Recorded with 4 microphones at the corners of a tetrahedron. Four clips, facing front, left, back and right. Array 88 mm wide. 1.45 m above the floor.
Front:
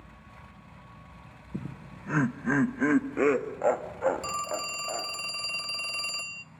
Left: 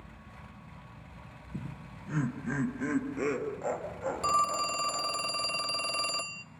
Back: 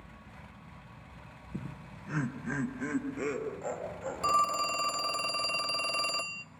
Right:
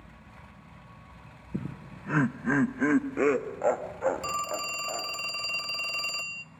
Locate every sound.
1.5 s laughter: 75° right, 0.7 m; by 5.1 s 35° right, 3.5 m
4.2 s a phone ringing: 145° left, 0.6 m